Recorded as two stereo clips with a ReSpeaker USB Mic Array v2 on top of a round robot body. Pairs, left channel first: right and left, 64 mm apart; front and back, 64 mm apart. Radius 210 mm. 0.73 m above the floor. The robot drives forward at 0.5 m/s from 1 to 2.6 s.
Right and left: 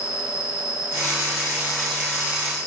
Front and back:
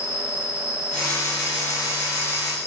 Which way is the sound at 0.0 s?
20° left.